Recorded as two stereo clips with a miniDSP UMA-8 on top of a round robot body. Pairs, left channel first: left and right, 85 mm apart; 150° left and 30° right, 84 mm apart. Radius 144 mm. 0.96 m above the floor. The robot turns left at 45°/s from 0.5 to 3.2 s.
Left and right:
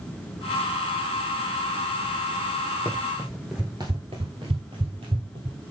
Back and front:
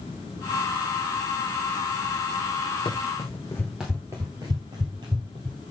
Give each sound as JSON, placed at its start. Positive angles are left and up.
{"t": 2.9, "sound": "running footsteps", "azimuth_deg": 160, "distance_m": 1.1}